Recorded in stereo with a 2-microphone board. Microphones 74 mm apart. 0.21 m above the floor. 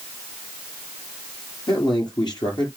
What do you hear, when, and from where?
1.7 s a man speaking: 75° left (ahead or behind), 5.5 m